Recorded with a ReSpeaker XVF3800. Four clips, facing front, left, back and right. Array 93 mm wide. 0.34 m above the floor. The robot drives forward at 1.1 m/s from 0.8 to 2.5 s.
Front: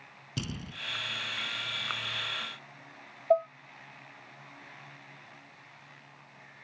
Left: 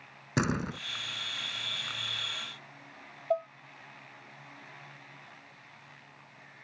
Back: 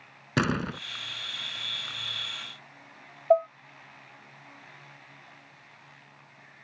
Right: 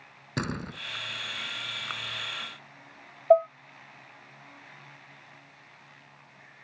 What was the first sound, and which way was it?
A door slam, 165° left.